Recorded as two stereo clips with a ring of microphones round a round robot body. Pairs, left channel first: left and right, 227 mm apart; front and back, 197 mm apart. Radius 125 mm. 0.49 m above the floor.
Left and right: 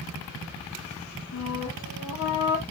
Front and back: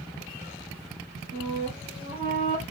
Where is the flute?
105° left, 2.5 m.